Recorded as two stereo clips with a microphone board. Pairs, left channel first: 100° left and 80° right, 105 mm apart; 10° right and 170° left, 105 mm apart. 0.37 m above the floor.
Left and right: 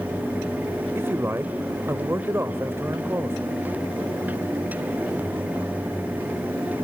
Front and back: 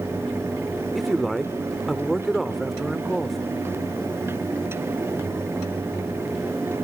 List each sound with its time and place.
0.9 s a man speaking: 105° right, 0.9 m